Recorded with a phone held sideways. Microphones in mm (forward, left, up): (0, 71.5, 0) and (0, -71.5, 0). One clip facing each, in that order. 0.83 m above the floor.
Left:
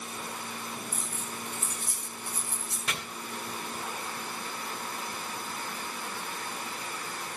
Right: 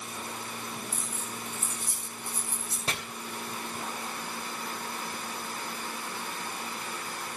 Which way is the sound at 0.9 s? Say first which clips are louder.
Even; 85° left.